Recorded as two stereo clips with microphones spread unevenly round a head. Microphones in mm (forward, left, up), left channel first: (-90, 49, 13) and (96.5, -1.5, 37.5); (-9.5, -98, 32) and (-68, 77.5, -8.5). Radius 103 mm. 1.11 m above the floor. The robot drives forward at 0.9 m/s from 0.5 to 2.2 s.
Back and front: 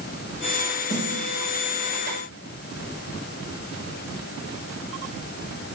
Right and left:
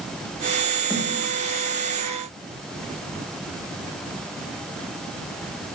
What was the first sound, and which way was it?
A snare drum, 155° right.